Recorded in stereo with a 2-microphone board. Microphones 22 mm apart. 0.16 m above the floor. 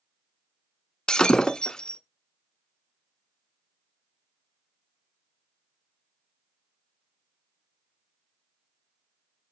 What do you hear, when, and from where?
1.1 s breaking glass: 35° left (ahead or behind), 0.9 m